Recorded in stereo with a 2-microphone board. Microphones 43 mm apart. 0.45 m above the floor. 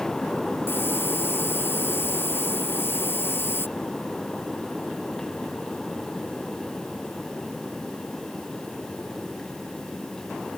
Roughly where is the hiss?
Left.